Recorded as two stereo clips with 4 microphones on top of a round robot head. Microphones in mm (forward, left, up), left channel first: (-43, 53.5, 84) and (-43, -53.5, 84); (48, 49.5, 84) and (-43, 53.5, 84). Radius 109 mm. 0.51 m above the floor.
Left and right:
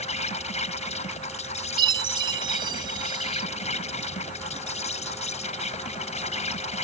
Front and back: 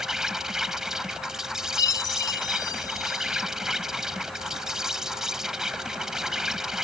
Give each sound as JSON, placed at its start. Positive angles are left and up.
{"t": 0.0, "sound": "an insect", "azimuth_deg": 95}
{"t": 1.8, "sound": "a chime", "azimuth_deg": -45}